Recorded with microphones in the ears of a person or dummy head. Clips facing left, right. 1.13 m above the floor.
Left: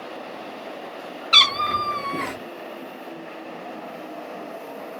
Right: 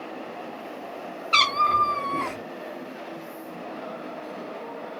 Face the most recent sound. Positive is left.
turn(degrees=15)  # may be behind; listen again after turning